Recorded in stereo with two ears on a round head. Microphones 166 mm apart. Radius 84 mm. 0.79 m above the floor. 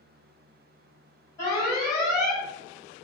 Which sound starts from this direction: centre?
An alarm, at 1.4 s.